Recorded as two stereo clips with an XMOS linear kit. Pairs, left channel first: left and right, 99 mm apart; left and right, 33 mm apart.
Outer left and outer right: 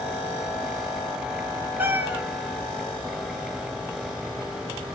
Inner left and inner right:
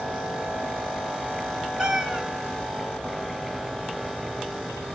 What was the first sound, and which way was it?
A cat meowing, 20° right (ahead or behind).